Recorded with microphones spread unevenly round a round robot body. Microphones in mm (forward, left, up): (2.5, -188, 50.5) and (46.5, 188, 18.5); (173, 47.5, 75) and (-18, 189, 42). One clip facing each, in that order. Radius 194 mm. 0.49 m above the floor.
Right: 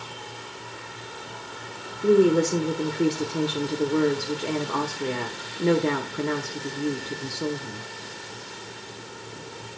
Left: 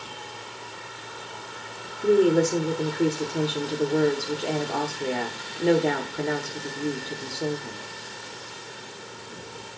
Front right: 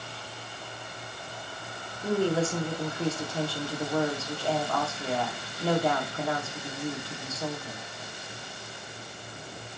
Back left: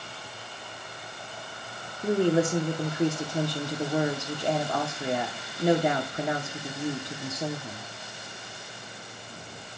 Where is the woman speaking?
175° right, 0.7 m.